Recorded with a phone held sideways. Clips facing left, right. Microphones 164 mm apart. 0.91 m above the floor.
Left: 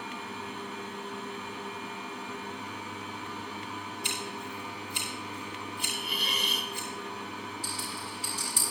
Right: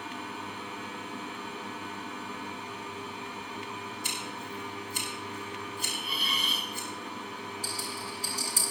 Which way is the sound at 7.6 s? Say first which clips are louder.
Right 1 dB; 40° right (ahead or behind).